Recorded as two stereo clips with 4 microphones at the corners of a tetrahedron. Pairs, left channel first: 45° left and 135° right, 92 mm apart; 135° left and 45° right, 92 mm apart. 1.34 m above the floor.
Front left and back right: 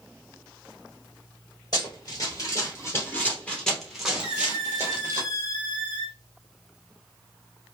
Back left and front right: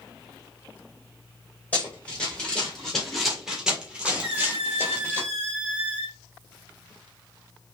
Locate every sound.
1.7 s running footsteps: 65° left, 2 m; by 5.2 s 95° right, 1.7 m
4.2 s a squeak: 30° left, 1.7 m